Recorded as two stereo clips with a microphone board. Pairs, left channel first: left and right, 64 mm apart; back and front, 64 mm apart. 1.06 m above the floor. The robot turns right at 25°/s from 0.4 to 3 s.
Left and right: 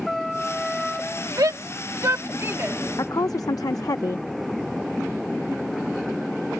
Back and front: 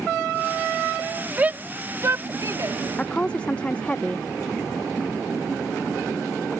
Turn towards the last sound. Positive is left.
turn(degrees=110)